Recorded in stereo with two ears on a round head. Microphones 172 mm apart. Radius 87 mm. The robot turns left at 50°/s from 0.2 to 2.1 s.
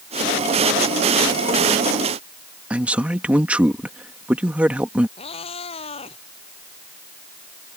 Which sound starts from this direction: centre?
A man speaking, at 2.7 s.